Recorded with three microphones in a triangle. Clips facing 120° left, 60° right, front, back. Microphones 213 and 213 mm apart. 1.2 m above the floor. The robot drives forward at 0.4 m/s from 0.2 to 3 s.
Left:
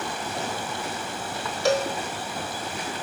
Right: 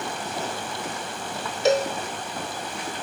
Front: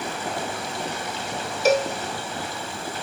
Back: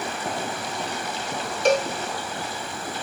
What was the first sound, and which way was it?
A cowbell, 70° right.